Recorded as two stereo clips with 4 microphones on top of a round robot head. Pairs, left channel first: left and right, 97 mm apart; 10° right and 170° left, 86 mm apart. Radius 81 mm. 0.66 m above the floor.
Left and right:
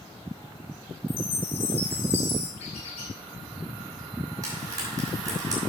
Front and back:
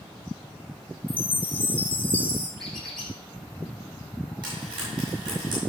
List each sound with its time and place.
1.1 s a chime: 60° left, 2.5 m
2.6 s a squeak: 80° left, 4 m
4.4 s frying: 145° right, 5.5 m